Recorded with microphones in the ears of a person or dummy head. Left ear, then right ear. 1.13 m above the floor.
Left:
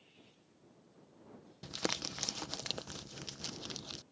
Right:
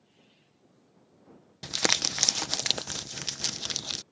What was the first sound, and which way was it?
Crumpling, 30° right (ahead or behind).